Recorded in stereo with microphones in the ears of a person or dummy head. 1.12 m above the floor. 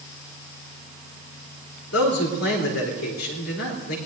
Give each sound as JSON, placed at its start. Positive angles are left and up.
{"t": 1.9, "sound": "a man speaking", "side_deg": 85, "distance_m": 3.5}